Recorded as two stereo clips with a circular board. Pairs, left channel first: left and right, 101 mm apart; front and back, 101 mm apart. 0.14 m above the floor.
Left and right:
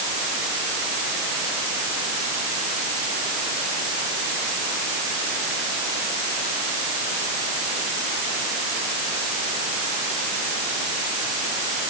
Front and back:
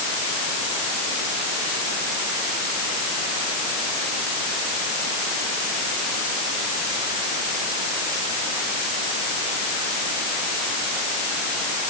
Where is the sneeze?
I don't hear a sneeze.